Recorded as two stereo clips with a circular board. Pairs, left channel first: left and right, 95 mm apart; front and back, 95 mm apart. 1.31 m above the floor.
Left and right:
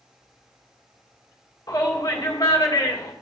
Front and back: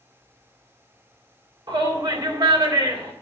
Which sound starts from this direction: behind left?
A shout, at 1.7 s.